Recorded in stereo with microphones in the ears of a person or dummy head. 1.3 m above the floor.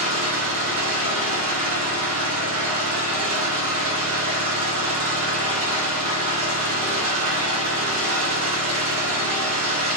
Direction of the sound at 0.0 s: 25° right (ahead or behind).